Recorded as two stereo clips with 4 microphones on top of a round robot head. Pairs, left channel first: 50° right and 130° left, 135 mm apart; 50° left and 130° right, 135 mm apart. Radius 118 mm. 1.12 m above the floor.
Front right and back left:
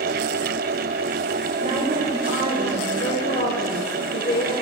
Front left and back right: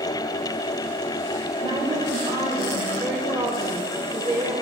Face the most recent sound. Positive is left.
turn(degrees=-65)